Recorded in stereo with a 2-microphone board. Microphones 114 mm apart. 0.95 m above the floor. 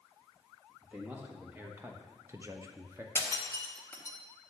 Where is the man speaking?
10° right (ahead or behind), 1.8 m; by 3.0 s 20° right (ahead or behind), 0.8 m.